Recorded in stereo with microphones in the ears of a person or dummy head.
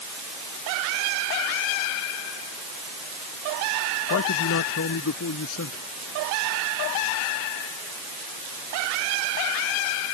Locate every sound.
4.1 s a man speaking: 70° left (ahead or behind)